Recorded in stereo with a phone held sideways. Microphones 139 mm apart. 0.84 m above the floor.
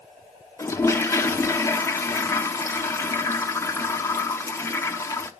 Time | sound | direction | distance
0.6 | a toilet flushing | 20° left (ahead or behind) | 0.9 m